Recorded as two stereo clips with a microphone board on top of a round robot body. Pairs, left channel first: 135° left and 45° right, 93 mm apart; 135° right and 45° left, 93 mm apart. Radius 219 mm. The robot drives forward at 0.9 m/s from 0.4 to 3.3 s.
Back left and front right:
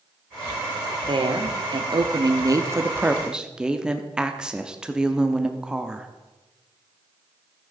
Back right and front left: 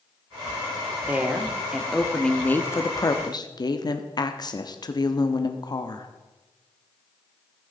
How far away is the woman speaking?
About 2.0 m.